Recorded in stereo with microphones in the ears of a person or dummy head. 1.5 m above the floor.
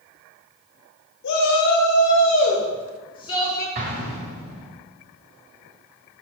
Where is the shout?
75° left (ahead or behind), 0.9 m; by 3.6 s 20° left (ahead or behind), 1.7 m.